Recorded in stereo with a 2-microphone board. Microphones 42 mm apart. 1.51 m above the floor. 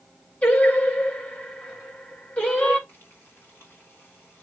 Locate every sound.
0.4 s singing: 35° left (ahead or behind), 5.5 m
2.9 s frying: 55° left (ahead or behind), 4 m